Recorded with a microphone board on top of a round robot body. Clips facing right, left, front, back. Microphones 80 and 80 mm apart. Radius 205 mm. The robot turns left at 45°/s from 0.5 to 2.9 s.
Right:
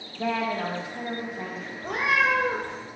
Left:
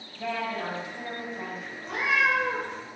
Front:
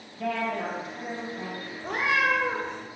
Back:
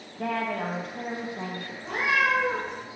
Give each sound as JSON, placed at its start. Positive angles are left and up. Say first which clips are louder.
{"t": 0.2, "sound": "a woman speaking", "louder": "right 4 dB, even", "azimuth_deg": -135, "distance_m": 2.0}
{"t": 1.8, "sound": "a cat meowing", "louder": "right 2 dB, even", "azimuth_deg": -50, "distance_m": 0.5}